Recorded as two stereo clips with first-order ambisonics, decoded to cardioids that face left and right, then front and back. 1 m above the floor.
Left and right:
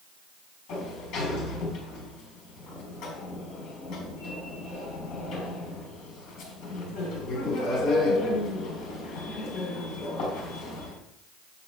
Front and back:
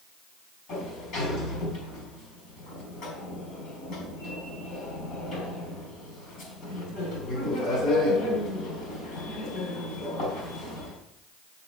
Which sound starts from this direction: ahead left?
A sliding door, at 0.7 s.